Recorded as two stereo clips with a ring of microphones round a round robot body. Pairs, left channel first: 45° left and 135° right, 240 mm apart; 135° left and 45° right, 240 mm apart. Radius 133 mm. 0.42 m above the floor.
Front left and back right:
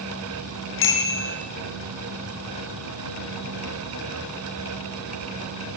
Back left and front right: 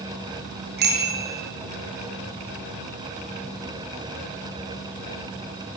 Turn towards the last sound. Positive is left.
turn(degrees=5)